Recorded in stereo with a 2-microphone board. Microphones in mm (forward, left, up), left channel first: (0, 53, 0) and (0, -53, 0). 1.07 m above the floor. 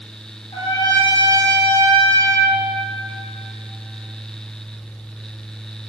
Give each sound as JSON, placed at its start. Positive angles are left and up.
{"t": 0.5, "sound": "a trumpet", "side_deg": 50, "distance_m": 3.0}